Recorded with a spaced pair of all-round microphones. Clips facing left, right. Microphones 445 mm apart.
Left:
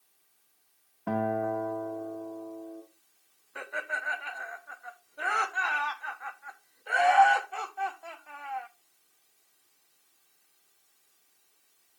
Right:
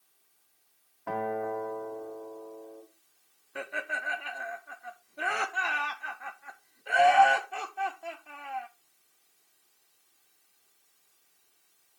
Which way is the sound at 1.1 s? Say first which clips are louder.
Left 2 dB; 50° left (ahead or behind).